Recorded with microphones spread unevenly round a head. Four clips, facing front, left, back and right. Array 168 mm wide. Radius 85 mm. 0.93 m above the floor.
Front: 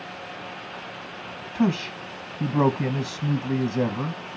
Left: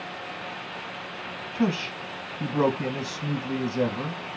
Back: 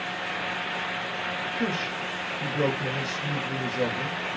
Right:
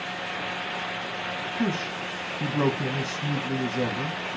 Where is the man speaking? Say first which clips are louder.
Left 3 dB, front 8 dB; 15° left, 1.2 m.